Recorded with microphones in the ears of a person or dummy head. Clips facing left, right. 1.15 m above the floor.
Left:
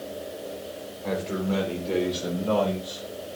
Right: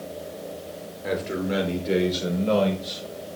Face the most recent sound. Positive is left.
turn(degrees=-30)  # may be behind; listen again after turning